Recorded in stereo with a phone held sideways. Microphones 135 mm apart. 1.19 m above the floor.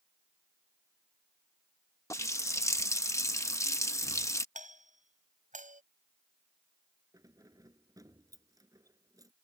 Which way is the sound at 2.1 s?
25° left (ahead or behind).